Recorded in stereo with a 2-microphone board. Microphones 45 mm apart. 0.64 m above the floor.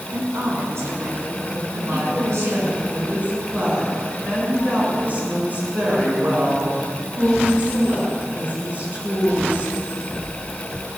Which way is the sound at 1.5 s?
40° right (ahead or behind).